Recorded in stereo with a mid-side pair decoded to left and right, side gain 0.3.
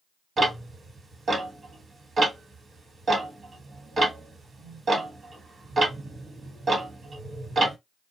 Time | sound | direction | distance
0.4 | ticking | 60° right | 1.3 m